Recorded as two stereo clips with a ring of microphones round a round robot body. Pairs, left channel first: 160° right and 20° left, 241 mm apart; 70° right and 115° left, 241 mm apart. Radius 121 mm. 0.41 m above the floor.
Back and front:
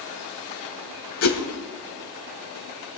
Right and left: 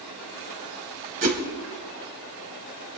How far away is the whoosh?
About 1.8 m.